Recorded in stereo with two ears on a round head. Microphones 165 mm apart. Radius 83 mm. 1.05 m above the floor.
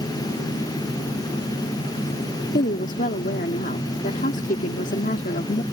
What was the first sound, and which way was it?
A woman speaking, 40° left (ahead or behind).